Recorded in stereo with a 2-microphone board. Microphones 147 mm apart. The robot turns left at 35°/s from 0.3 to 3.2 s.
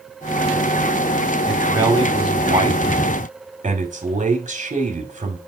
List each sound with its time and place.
1.5 s a man speaking: 10° right, 2 m; by 5.4 s 70° right, 2 m